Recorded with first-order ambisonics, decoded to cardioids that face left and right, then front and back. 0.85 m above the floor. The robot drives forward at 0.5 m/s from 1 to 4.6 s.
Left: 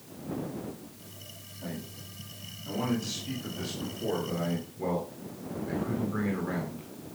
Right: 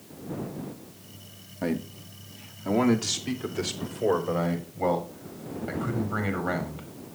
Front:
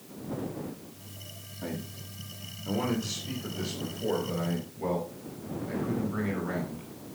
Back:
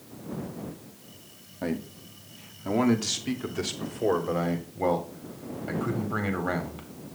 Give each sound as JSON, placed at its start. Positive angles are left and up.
{"t": 1.6, "sound": "a man speaking", "azimuth_deg": -125, "distance_m": 1.7}